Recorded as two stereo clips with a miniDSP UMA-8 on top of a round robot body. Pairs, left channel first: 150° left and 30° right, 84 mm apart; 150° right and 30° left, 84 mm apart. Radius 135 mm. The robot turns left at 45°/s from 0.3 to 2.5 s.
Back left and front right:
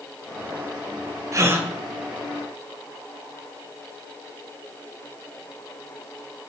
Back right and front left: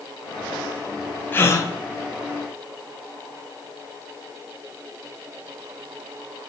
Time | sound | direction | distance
1.3 | a gasp | 85° right | 2.5 m